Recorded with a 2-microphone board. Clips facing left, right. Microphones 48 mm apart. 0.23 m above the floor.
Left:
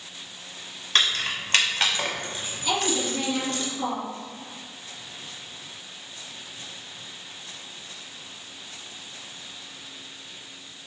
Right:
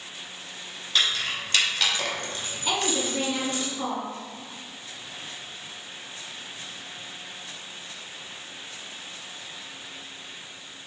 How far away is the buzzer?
No buzzer in this recording.